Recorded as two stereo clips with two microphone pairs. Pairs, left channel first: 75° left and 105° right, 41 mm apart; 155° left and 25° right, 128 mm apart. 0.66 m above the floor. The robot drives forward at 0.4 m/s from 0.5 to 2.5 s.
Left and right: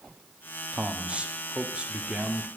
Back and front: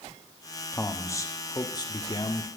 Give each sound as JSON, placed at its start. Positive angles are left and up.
{"t": 0.7, "sound": "a man speaking", "azimuth_deg": -140, "distance_m": 1.2}